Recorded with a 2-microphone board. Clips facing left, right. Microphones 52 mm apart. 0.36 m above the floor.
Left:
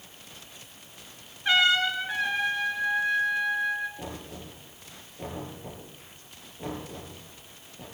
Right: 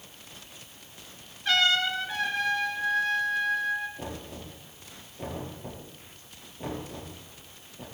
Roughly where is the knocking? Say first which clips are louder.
Right 1 dB; centre.